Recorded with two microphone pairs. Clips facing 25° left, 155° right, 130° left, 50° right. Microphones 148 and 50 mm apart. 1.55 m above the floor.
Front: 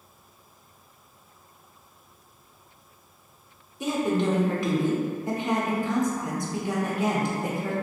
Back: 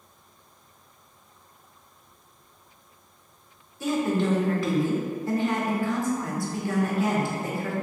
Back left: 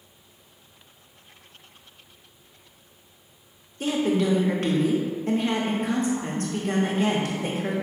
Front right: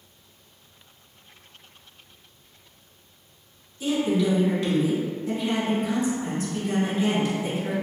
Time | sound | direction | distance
3.8 | a woman speaking | 95° left | 0.7 m